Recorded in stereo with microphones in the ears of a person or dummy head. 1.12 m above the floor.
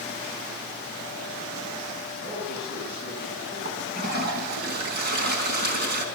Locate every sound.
2.2 s a man speaking: 40° right (ahead or behind), 8 m
3.6 s a toilet flushing: 50° right (ahead or behind), 4 m